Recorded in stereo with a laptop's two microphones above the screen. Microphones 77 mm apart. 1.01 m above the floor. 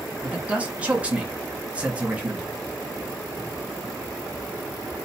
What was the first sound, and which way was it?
A man speaking, 20° right (ahead or behind).